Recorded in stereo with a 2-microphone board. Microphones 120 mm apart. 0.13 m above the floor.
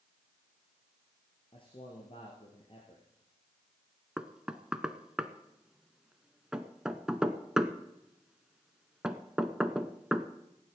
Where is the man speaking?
50° left (ahead or behind), 2.5 m.